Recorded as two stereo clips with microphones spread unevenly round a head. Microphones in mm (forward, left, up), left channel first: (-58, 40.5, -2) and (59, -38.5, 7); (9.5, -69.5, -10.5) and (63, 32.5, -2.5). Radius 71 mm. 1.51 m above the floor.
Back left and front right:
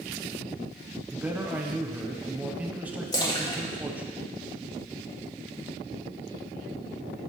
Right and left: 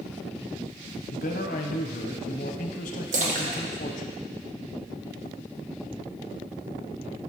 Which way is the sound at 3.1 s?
80° left.